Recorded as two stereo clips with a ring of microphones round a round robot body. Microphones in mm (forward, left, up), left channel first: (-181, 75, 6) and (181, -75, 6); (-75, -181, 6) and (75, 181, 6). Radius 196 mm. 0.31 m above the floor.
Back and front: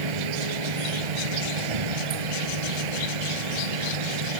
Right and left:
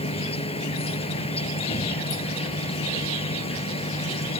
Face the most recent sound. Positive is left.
turn(degrees=-35)